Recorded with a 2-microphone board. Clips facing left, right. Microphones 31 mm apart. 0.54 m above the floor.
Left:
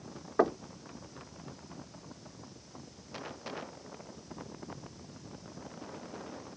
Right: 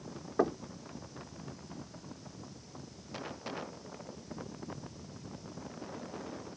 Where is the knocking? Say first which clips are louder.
Left 3 dB; 25° left (ahead or behind).